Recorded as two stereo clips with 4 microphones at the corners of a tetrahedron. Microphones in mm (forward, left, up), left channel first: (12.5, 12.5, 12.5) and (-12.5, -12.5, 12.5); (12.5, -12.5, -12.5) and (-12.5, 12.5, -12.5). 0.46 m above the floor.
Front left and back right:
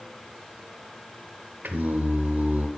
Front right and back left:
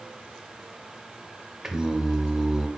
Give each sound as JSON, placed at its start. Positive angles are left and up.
{"t": 1.6, "sound": "singing", "azimuth_deg": -150, "distance_m": 0.9}